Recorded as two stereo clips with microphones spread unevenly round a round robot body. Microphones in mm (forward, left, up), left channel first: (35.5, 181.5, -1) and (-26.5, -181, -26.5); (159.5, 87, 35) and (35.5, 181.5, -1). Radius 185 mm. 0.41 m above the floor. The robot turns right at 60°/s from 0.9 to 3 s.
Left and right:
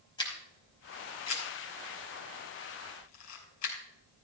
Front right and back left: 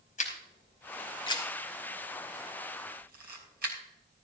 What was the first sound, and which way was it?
A camera shutter, straight ahead.